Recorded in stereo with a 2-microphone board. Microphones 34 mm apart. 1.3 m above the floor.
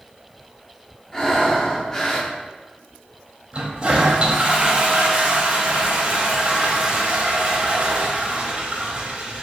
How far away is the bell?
No bell in this recording.